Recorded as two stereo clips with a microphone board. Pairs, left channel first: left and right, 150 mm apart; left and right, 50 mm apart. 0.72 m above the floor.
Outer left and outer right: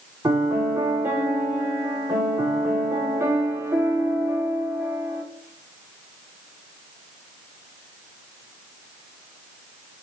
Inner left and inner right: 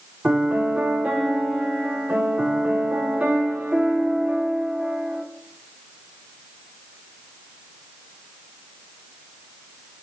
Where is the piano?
20° right (ahead or behind), 2.5 m.